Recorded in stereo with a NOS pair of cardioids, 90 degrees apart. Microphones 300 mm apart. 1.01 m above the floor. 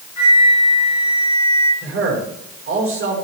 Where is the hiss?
I don't hear a hiss.